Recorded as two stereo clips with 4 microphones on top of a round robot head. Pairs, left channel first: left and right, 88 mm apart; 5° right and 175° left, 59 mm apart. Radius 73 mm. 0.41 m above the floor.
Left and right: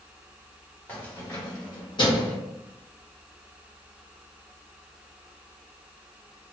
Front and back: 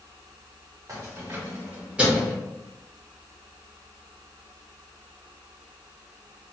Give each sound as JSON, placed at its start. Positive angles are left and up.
{"t": 0.9, "sound": "keys jangling", "azimuth_deg": 160, "distance_m": 1.3}